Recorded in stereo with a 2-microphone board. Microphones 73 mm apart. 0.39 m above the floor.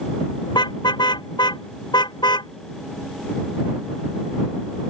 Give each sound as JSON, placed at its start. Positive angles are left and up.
{"t": 0.5, "sound": "a car horn", "side_deg": 85}